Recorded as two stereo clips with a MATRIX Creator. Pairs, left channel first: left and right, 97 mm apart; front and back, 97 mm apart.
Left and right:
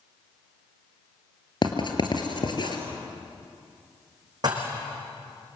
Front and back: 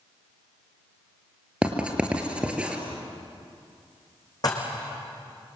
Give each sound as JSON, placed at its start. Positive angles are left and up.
{"t": 1.6, "sound": "writing", "azimuth_deg": 105, "distance_m": 2.5}
{"t": 4.4, "sound": "dishes clattering", "azimuth_deg": -50, "distance_m": 5.0}